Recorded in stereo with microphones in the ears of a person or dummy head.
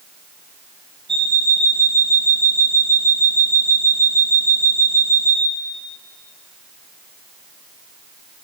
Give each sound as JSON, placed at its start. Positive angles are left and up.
{"t": 1.1, "sound": "an alarm clock", "side_deg": -25, "distance_m": 4.5}